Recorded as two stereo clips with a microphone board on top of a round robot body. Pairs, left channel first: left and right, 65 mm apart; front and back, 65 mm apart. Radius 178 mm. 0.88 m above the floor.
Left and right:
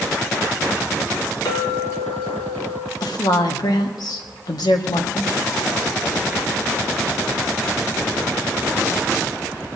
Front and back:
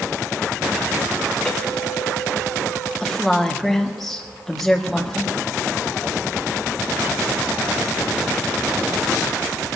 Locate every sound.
1.4 s a clink: 80° left, 2.5 m
3.0 s a woman speaking: 85° left, 1.8 m